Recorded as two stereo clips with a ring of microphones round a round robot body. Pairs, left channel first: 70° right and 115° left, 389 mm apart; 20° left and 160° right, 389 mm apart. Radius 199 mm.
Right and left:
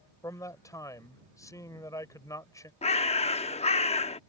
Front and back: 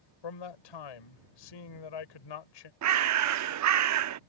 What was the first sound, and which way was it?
A man speaking, 15° left.